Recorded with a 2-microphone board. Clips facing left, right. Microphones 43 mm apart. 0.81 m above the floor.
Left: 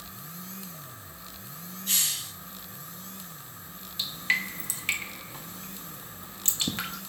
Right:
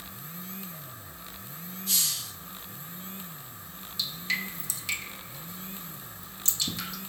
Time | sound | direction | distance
1.9 | a hiss | 55° left (ahead or behind) | 1.9 m
4.0 | dripping | 45° left (ahead or behind) | 1.3 m